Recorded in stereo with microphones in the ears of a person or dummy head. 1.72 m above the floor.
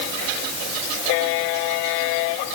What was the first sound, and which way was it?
Only background noise.